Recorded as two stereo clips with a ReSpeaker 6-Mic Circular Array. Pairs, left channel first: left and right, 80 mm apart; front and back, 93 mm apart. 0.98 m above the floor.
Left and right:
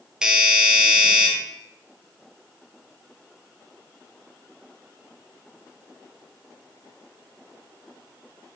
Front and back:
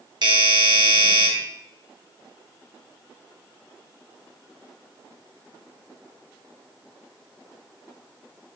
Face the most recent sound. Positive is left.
turn(degrees=-170)